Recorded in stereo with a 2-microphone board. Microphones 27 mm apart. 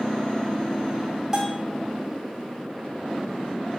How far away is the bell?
About 2 m.